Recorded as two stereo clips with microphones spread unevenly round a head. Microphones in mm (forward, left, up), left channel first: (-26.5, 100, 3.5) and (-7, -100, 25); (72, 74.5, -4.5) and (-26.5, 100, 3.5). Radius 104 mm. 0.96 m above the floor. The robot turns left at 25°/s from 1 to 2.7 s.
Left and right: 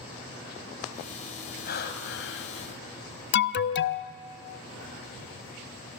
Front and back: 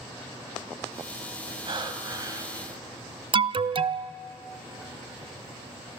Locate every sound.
1.6 s breathing: 135° left, 2 m; by 2.7 s 110° left, 2 m
3.3 s an alarm: 130° left, 0.6 m